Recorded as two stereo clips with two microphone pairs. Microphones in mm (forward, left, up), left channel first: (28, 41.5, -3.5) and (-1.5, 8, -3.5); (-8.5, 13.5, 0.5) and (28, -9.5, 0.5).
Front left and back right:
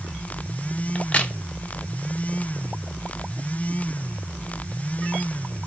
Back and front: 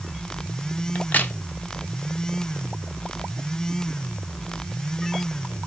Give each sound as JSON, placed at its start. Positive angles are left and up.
{"t": 0.9, "sound": "a crack", "azimuth_deg": 100, "distance_m": 0.7}